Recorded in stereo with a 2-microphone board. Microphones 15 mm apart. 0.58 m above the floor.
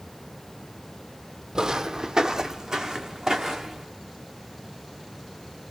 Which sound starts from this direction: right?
Footsteps, at 1.6 s.